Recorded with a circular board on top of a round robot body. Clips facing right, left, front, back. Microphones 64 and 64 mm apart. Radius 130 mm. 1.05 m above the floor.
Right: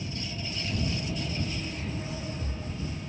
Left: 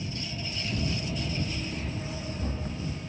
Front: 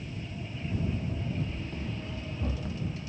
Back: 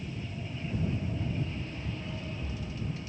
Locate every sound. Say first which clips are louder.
0.8 s running footsteps: even, back 1 dB; 30° left